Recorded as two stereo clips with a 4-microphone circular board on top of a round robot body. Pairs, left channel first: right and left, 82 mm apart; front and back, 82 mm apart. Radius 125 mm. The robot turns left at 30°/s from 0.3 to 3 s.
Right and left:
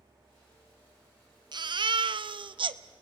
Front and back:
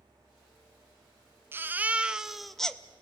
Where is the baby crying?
120° left, 0.8 m; by 2.8 s 80° left, 0.8 m.